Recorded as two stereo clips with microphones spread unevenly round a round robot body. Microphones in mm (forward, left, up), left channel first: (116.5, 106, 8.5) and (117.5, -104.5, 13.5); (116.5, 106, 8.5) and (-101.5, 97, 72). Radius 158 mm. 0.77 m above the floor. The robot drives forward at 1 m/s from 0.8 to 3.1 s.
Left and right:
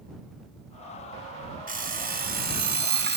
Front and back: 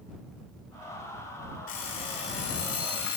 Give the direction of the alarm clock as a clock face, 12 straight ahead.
1 o'clock.